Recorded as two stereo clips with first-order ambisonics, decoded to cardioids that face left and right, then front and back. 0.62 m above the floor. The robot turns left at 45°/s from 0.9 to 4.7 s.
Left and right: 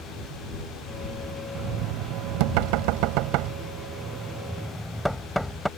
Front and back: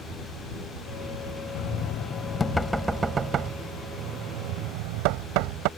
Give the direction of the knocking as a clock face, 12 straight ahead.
1 o'clock.